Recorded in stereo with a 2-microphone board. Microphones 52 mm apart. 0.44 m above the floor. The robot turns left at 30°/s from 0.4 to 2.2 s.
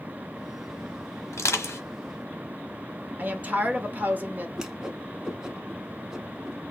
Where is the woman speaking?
35° right (ahead or behind), 1.0 m.